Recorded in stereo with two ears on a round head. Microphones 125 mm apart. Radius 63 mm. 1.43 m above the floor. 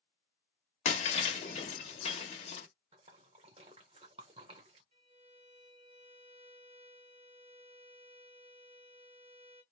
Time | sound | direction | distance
0.8 | breaking glass | 45° left (ahead or behind) | 1.3 m
2.9 | a splash | 40° right (ahead or behind) | 1.1 m
4.9 | a violin | 40° right (ahead or behind) | 2.0 m